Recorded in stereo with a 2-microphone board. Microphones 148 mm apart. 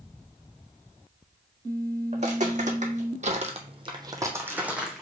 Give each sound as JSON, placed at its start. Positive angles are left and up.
{"t": 2.1, "sound": "footsteps", "side_deg": -50, "distance_m": 1.1}